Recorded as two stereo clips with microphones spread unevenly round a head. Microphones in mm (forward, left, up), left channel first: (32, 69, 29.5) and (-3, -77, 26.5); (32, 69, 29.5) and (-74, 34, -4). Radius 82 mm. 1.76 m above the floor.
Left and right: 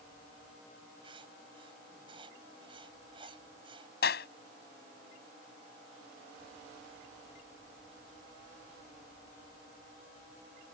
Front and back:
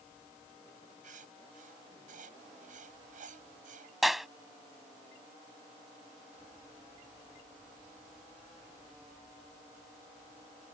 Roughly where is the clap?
Left.